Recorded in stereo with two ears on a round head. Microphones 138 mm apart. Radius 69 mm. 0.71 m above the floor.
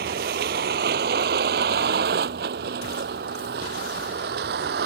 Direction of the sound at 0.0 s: 65° right (ahead or behind).